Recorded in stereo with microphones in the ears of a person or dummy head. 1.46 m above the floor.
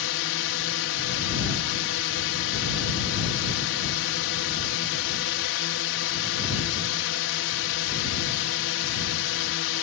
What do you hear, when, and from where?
0.0 s a drone: 65° left (ahead or behind)